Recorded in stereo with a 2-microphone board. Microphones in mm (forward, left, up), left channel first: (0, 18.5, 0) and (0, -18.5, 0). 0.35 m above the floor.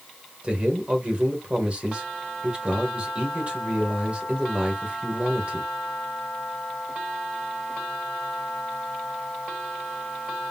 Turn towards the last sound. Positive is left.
turn(degrees=-30)  # may be behind; listen again after turning